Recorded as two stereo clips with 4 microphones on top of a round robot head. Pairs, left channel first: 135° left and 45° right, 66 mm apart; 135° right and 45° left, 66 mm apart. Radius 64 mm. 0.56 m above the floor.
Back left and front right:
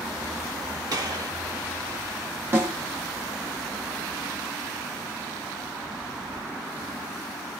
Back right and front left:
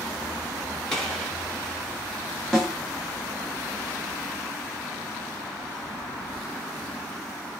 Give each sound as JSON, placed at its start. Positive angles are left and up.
{"t": 0.9, "sound": "a gunshot", "azimuth_deg": -55, "distance_m": 1.5}
{"t": 2.5, "sound": "a snare drum", "azimuth_deg": -60, "distance_m": 1.3}